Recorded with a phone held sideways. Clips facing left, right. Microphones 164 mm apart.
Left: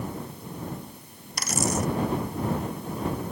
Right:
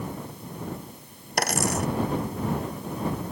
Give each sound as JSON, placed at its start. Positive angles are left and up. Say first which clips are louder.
{"t": 1.4, "sound": "a dropped coin", "louder": "right 1 dB", "side_deg": -65}